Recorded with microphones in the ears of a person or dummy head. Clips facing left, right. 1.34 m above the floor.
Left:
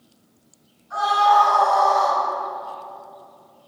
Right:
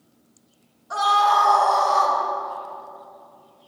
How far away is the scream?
About 3 m.